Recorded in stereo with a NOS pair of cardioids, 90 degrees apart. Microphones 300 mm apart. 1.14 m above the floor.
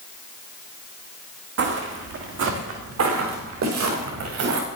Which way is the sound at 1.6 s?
55° right.